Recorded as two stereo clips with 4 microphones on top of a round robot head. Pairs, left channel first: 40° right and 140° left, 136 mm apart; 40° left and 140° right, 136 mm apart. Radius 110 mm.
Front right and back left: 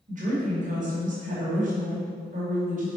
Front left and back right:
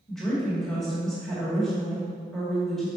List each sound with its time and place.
0.1 s a woman speaking: 125° left, 2 m